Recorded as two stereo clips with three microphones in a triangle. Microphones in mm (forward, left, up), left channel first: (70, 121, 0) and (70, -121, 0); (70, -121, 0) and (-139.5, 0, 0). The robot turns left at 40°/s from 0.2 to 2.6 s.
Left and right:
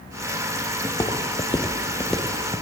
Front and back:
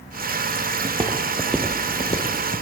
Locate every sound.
0.8 s footsteps: 150° left, 1.2 m; by 2.6 s 30° right, 1.5 m